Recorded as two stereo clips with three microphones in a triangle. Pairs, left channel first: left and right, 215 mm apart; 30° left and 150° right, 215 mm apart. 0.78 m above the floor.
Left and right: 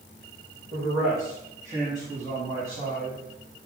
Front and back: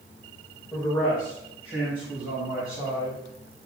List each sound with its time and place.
0.7 s a man speaking: 45° right, 3.5 m; by 3.2 s 30° right, 5 m